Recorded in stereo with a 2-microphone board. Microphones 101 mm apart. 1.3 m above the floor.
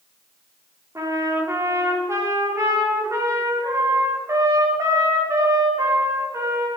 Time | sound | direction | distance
0.9 | a trumpet | 30° right (ahead or behind) | 3.5 m